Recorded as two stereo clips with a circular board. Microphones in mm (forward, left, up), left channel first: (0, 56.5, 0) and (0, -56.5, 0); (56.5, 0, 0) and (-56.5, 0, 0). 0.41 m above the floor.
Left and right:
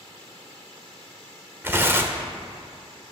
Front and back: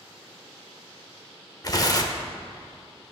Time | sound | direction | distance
1.6 | tearing paper | 30° right | 0.6 m